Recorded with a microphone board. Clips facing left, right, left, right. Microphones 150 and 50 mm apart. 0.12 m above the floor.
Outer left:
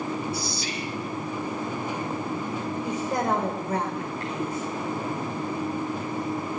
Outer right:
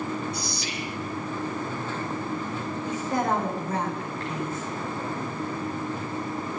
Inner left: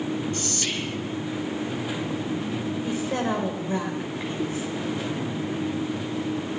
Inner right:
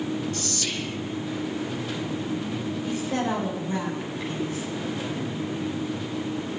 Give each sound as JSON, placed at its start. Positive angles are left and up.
{"t": 0.3, "sound": "whispering", "side_deg": 30, "distance_m": 3.0}
{"t": 2.9, "sound": "a woman speaking", "side_deg": 15, "distance_m": 5.5}